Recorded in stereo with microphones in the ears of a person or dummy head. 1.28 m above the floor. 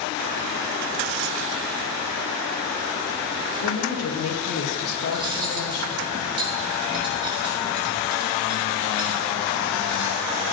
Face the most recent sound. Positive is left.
turn(degrees=-25)  # may be behind; listen again after turning